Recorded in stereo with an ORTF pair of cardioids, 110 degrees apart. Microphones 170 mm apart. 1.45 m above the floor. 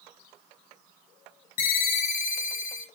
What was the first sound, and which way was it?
A ringtone, 60° left.